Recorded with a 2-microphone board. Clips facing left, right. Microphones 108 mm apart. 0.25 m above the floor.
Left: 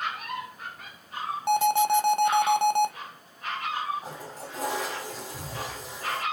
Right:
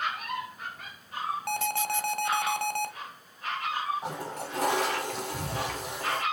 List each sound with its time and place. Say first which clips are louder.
1.5 s an alarm: left 12 dB; 20° left (ahead or behind), 0.8 m
4.0 s a toilet flushing: right 4 dB; 70° right (ahead or behind), 1.1 m